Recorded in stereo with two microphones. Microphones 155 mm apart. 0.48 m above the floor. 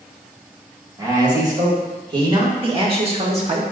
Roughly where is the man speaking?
Right.